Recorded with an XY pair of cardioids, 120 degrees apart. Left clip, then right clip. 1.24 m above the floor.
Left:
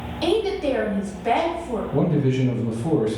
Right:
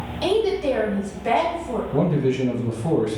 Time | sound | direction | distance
0.2 | a woman speaking | straight ahead | 0.8 m
1.9 | a man speaking | straight ahead | 0.9 m